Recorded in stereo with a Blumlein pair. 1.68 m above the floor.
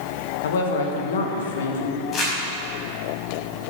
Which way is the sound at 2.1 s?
30° left.